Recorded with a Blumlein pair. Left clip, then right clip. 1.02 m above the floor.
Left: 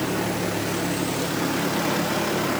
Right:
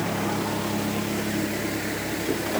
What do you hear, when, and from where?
Only background noise.